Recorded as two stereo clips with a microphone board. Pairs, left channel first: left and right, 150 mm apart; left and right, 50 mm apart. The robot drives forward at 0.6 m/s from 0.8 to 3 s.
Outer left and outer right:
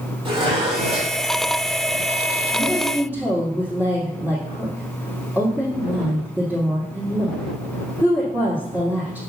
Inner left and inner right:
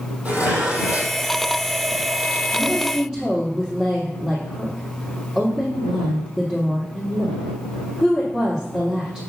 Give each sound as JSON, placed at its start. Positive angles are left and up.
{"t": 0.2, "sound": "dishes clattering", "side_deg": -35, "distance_m": 2.5}
{"t": 2.5, "sound": "a woman speaking", "side_deg": -10, "distance_m": 3.0}